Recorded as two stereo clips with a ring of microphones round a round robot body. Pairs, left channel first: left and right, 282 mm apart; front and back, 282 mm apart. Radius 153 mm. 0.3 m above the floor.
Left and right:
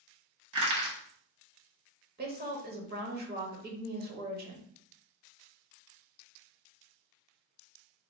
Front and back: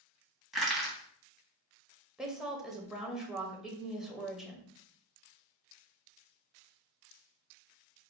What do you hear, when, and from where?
0.5 s crushing: 90° right, 1.5 m
2.2 s a woman speaking: 95° right, 0.9 m